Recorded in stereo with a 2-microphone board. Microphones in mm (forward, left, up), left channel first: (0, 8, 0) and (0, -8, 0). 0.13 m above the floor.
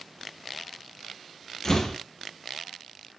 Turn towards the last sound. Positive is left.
turn(degrees=25)  # may be behind; listen again after turning